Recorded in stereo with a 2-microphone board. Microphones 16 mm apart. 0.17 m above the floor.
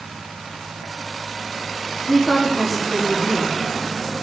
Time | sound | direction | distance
2.1 | a woman speaking | 75° right (ahead or behind) | 7 m